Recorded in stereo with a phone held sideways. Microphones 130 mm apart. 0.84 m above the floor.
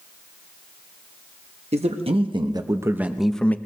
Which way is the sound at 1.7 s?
55° right (ahead or behind).